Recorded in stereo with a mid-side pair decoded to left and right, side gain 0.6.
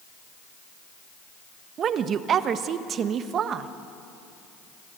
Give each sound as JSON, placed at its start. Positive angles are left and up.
{"t": 1.8, "sound": "a woman speaking", "azimuth_deg": -45, "distance_m": 1.3}